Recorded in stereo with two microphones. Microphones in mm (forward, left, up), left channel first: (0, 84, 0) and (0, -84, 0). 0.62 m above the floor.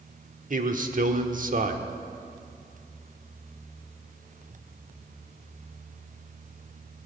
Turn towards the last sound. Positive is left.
turn(degrees=-50)  # may be behind; listen again after turning